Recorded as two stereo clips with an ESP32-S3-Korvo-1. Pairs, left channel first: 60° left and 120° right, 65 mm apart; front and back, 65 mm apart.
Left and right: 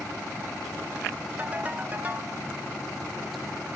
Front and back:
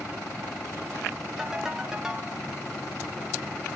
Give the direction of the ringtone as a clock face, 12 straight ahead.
4 o'clock.